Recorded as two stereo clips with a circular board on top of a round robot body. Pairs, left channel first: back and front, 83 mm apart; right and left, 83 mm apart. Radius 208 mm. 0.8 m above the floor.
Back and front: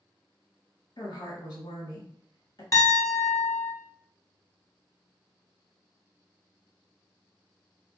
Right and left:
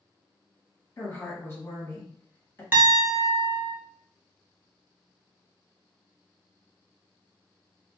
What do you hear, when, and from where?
1.0 s a woman speaking: 145° right, 1.6 m
2.7 s a piano: 150° left, 1.2 m